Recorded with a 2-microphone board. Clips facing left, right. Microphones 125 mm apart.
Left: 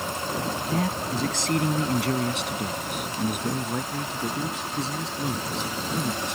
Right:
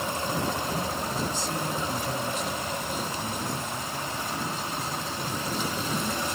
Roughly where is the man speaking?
Left.